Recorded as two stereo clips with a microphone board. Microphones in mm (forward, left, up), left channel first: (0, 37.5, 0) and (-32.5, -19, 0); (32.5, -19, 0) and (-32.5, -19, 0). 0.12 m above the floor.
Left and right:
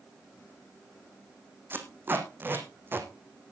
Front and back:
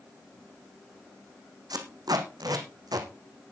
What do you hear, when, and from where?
1.7 s tape being pulled: 175° right, 2 m